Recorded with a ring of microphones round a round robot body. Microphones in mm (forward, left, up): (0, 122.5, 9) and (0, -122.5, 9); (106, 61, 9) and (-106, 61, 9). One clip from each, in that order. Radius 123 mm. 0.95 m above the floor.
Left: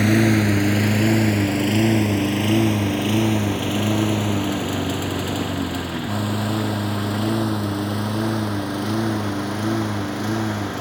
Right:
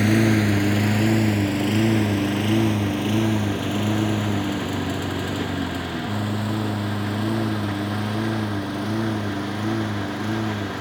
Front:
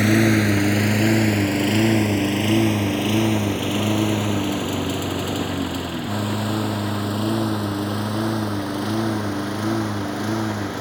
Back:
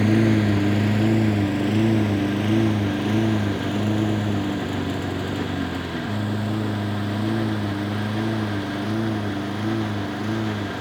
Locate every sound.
0.0 s a lawn mower: 5° left; by 10.8 s 20° left